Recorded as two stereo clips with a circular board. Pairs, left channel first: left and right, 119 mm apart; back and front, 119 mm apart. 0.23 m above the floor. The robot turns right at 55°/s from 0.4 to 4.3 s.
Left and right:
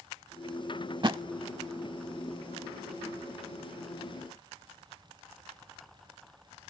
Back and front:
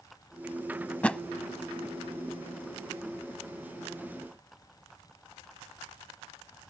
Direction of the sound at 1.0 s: 110° right.